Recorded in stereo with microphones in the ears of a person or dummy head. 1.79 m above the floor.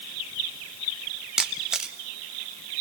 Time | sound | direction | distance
1.4 | a camera shutter | centre (ahead or behind) | 0.6 m